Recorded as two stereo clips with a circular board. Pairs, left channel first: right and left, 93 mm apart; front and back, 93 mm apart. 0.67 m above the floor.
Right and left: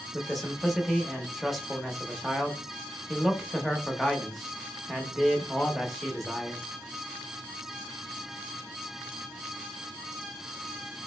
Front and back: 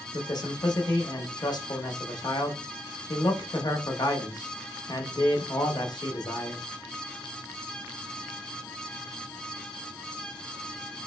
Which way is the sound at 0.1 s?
Straight ahead.